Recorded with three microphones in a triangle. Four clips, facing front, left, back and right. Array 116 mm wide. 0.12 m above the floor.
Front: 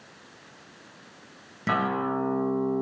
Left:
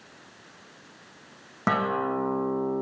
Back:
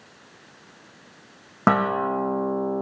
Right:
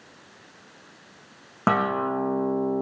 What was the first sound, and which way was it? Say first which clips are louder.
A guitar: right 2 dB, back 5 dB; 170° right.